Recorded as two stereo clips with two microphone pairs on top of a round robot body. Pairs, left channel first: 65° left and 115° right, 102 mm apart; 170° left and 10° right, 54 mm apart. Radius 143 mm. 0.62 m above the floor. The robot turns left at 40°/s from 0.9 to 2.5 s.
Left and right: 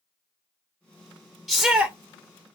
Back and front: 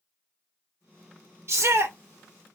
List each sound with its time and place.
1.5 s a shout: 20° right, 0.7 m; by 1.9 s 40° right, 0.7 m